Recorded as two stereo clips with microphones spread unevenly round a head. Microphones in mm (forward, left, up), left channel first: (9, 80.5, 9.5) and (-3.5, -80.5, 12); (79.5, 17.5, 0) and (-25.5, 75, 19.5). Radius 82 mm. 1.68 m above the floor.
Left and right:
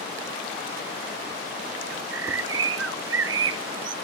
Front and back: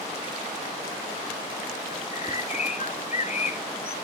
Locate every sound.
1.9 s a bird: 80° right, 0.7 m